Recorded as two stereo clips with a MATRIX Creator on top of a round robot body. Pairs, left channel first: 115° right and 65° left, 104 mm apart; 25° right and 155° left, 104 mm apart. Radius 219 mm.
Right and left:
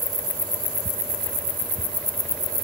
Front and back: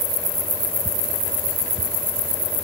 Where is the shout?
I don't hear a shout.